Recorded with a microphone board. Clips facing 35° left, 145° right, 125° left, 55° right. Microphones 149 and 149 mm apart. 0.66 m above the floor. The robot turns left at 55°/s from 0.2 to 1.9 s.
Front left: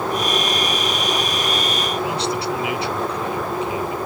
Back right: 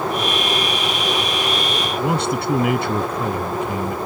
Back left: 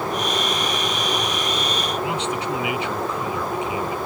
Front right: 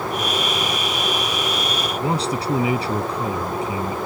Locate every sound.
2.0 s a man speaking: 110° right